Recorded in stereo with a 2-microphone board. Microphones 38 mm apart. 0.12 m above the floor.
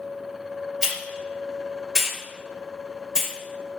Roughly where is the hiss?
Centre.